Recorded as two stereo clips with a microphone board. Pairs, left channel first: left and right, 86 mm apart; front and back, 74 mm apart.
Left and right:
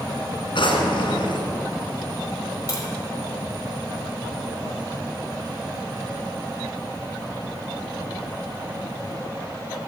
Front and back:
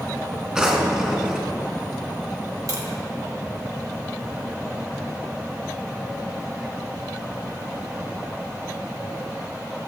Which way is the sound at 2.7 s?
140° left.